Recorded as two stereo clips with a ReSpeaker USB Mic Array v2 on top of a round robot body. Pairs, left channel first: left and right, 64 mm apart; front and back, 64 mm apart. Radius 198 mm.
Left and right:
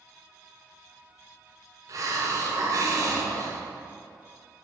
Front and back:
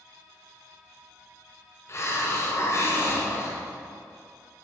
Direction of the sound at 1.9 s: 50° right.